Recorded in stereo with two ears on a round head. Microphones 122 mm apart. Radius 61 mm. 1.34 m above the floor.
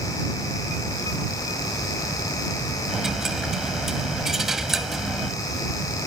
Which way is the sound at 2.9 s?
5° right (ahead or behind).